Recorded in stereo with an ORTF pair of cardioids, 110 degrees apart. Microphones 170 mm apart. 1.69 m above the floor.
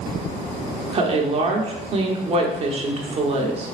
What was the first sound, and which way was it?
A woman speaking, 35° right.